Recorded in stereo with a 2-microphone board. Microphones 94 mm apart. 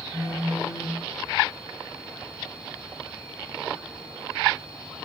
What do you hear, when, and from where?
0.1 s a phone buzzing: 40° left (ahead or behind), 5.5 m